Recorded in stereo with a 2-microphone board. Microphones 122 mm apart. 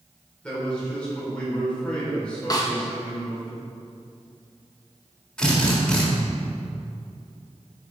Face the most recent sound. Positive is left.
turn(degrees=5)  # may be behind; listen again after turning